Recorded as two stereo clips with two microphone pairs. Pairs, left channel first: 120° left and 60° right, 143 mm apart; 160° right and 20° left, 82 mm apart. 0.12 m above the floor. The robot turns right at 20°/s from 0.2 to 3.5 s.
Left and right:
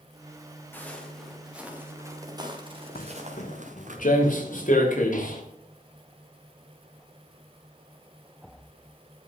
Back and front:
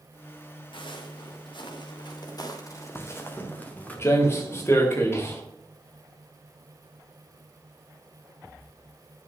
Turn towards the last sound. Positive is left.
turn(degrees=140)